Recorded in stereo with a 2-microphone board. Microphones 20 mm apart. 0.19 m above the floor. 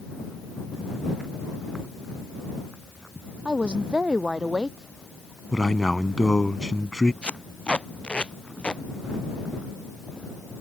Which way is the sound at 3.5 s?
60° right (ahead or behind).